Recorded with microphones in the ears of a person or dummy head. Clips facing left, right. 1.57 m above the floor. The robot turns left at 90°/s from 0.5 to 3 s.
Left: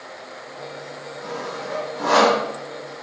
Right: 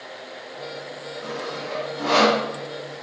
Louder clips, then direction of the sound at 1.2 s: Left 1 dB; 30° right (ahead or behind).